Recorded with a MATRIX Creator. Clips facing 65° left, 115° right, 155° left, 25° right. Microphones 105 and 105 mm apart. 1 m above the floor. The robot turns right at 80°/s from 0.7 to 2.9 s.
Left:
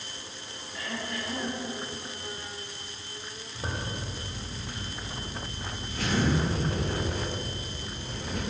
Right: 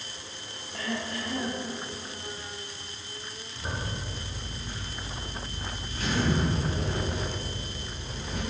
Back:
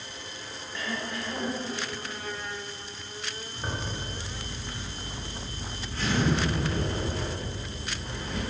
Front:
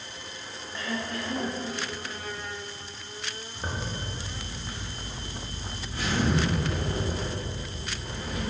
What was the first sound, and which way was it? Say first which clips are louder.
Throat clearing: right 3 dB, front 1 dB; 90° right.